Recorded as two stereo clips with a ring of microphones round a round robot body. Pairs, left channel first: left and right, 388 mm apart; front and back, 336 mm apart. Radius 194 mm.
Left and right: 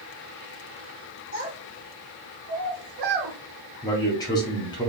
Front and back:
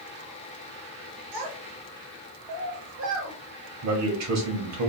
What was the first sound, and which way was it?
A child speaking, 165° right.